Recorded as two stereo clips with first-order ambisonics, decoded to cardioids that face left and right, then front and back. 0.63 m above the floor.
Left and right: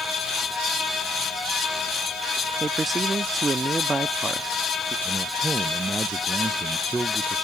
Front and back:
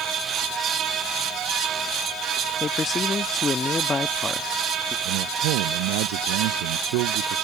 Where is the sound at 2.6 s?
35° right.